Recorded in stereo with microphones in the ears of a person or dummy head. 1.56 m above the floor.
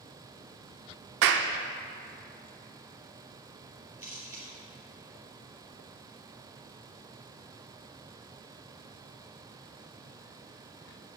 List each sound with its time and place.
1.2 s a clap: 50° right (ahead or behind), 0.5 m
4.0 s a camera shutter: 5° right (ahead or behind), 2.5 m